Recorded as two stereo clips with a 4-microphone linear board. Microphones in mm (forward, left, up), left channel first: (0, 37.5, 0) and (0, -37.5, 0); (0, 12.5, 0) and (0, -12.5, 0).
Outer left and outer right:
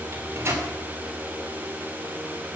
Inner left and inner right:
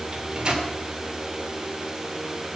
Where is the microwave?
35° right (ahead or behind), 3 m.